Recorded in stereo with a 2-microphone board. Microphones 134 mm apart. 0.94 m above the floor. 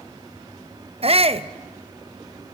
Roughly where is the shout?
Right.